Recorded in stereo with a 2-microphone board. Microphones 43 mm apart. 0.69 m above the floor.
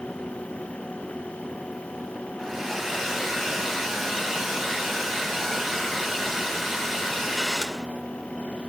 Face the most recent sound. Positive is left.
turn(degrees=5)  # may be behind; listen again after turning